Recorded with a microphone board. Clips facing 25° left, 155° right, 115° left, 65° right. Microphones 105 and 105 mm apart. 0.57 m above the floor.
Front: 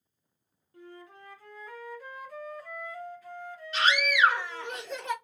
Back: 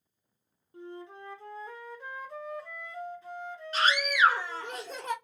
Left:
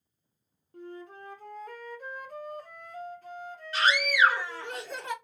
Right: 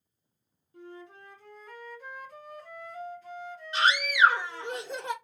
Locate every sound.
0.7 s a flute: 140° left, 0.9 m
3.7 s a scream: 130° right, 1.6 m